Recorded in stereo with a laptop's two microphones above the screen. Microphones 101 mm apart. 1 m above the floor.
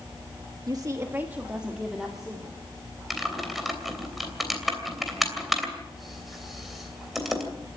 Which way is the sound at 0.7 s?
45° right (ahead or behind).